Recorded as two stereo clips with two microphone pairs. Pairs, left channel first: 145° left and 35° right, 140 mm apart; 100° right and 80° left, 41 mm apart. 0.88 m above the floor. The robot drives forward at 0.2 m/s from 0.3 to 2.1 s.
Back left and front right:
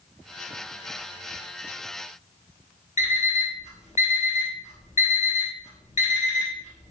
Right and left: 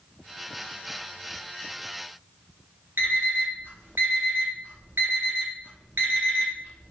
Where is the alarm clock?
105° left, 0.9 m.